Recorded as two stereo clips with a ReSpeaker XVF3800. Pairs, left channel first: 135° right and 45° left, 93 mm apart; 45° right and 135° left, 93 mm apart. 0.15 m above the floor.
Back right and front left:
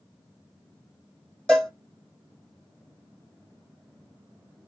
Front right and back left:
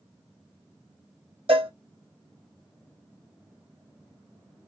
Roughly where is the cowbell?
Behind left.